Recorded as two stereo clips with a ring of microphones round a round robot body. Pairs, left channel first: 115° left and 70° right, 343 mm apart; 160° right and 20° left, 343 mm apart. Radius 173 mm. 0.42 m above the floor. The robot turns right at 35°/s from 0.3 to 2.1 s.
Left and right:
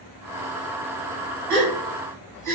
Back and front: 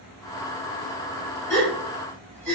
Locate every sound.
1.5 s a gasp: 95° right, 1.1 m; by 2.6 s 70° right, 1.1 m